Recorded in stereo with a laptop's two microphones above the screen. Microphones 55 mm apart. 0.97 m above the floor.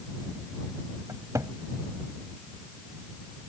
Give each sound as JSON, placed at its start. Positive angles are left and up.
{"t": 1.1, "sound": "a cupboard door", "side_deg": -75}